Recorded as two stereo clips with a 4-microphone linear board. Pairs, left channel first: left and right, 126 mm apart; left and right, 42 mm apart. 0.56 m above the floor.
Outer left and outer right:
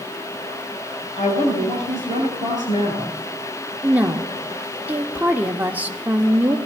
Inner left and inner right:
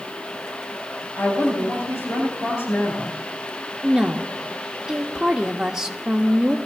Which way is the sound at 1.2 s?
70° left (ahead or behind).